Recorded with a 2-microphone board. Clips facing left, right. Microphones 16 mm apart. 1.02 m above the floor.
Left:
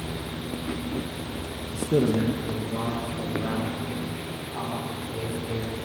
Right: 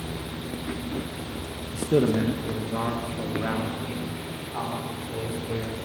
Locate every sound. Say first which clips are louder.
1.7 s a man speaking: right 1 dB; 20° right (ahead or behind), 1.0 m; by 5.8 s 40° right (ahead or behind), 5.5 m